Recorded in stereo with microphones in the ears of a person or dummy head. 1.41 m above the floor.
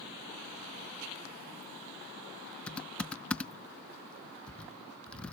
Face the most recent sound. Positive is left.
turn(degrees=5)  # may be behind; listen again after turning